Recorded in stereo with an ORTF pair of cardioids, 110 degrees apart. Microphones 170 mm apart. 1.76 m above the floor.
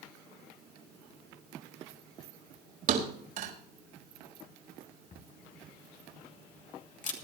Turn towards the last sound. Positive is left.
turn(degrees=50)